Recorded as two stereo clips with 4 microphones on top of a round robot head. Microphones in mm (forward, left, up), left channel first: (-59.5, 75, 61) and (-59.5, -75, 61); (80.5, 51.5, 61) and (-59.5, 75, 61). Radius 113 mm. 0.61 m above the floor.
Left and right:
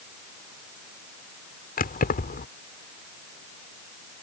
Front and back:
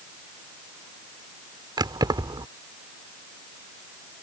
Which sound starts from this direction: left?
Keys jangling, at 1.8 s.